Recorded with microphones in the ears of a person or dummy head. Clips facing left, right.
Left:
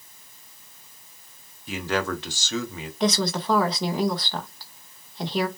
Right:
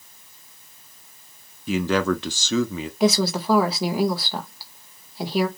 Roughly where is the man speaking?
Right.